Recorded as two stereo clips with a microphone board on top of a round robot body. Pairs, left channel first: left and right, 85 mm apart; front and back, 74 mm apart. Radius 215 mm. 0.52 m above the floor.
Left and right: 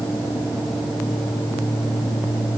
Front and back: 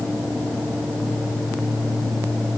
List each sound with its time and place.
Only background noise.